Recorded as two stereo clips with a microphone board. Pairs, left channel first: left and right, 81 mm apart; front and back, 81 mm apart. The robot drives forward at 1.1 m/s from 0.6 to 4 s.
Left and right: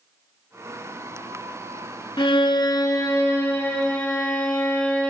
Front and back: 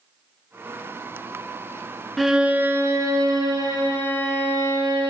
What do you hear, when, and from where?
2.2 s a violin: 90° left, 0.9 m; by 5.1 s 155° left, 2 m